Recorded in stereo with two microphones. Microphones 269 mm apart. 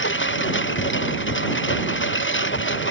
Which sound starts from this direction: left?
A lawn mower, at 0.0 s.